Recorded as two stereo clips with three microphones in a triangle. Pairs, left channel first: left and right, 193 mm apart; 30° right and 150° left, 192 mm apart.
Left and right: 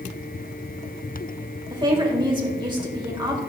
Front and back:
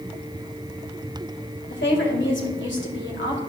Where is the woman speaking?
25° right, 1.8 m.